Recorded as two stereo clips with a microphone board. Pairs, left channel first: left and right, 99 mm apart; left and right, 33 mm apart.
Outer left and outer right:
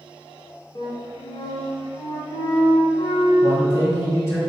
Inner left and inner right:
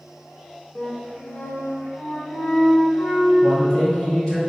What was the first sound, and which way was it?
A flute, 55° left (ahead or behind).